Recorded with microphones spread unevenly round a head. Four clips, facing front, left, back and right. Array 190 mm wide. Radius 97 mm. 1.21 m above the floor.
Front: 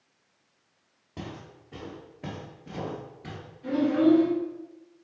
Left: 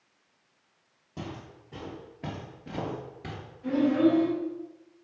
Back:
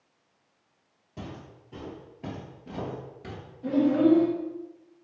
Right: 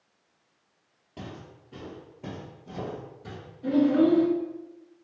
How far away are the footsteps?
About 1.7 m.